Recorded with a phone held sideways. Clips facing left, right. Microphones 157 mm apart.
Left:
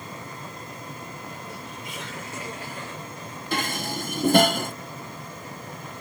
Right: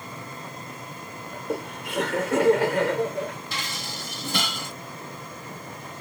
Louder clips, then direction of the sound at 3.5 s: Left 7 dB; 50° left (ahead or behind).